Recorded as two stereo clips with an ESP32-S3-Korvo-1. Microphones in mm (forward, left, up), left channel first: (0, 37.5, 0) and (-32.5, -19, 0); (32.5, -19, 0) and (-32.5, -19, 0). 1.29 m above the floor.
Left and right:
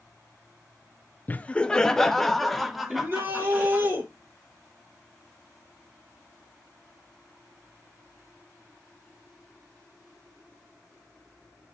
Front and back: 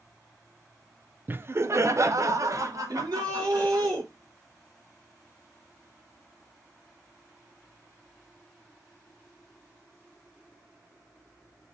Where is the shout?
175° right, 4.5 m.